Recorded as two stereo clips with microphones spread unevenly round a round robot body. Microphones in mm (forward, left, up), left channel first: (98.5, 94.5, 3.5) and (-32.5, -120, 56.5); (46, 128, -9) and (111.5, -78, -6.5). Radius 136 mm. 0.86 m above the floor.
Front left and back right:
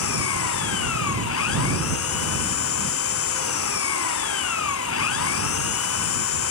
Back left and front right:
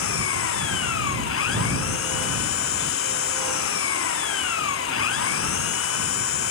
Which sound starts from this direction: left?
An engine running, at 0.0 s.